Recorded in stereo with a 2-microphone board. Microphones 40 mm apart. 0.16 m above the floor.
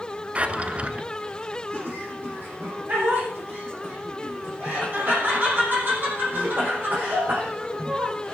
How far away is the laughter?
About 8 m.